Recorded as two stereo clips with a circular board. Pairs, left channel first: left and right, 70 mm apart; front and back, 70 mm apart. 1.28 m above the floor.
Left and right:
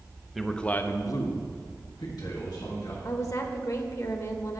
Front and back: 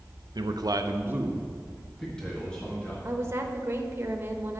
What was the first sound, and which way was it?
A man speaking, straight behind.